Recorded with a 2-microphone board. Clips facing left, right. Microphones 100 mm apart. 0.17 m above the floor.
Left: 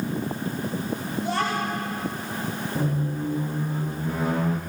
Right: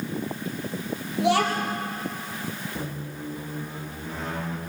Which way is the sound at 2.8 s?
10° left (ahead or behind).